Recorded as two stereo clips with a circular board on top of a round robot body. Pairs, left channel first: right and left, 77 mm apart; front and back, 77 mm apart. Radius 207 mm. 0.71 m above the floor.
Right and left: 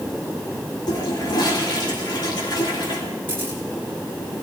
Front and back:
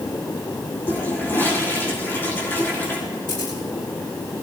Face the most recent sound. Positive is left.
turn(degrees=25)